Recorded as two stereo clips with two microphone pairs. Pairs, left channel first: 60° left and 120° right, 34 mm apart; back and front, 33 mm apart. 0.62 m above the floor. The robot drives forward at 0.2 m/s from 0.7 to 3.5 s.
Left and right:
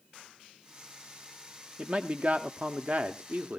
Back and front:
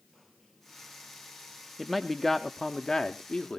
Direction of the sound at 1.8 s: 90° right.